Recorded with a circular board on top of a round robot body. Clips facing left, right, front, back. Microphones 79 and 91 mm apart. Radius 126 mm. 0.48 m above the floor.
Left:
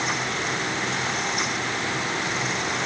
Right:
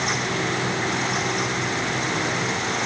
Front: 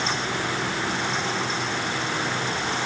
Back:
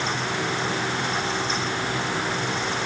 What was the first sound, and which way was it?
Only background noise.